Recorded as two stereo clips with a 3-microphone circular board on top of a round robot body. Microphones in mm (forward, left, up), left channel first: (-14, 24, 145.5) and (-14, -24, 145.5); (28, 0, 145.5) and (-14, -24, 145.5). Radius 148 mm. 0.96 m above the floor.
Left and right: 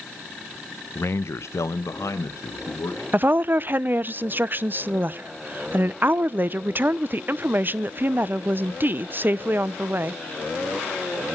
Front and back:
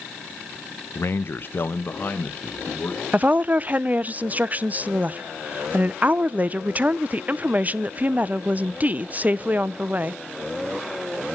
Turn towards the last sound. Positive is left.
turn(degrees=-110)